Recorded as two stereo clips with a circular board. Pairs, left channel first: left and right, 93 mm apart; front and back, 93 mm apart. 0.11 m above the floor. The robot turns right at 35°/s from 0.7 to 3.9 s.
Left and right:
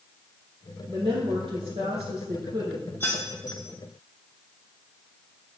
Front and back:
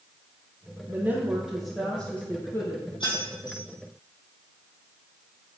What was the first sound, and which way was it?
A woman speaking, 120° right.